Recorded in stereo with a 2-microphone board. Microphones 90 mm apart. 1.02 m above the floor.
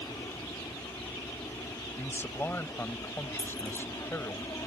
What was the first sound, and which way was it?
An aircraft, 50° left (ahead or behind).